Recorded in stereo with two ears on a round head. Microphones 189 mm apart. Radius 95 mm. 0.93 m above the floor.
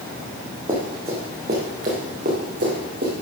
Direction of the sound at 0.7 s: 25° right (ahead or behind).